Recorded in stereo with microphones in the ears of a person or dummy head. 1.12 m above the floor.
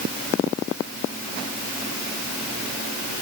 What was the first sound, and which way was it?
Only background noise.